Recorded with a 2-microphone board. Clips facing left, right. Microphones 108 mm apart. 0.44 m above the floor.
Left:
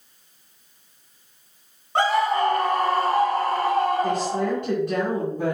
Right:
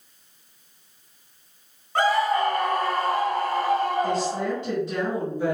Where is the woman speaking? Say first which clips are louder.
Left 2 dB; 55° left (ahead or behind), 3 m.